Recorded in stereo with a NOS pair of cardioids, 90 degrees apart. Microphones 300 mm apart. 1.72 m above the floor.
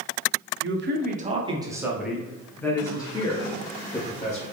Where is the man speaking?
45° right, 0.9 m; by 4.4 s 25° left, 2.5 m.